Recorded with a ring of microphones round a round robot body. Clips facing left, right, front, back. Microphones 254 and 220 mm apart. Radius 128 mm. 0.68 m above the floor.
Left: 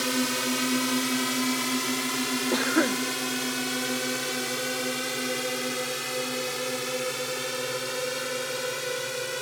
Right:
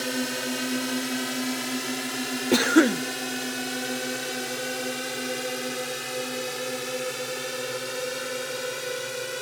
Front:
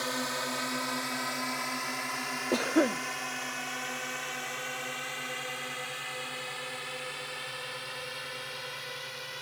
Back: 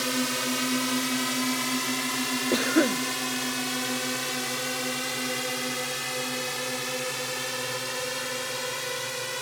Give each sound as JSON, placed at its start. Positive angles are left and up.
{"t": 0.0, "sound": "a drone", "azimuth_deg": 165}
{"t": 2.5, "sound": "a cough", "azimuth_deg": -110}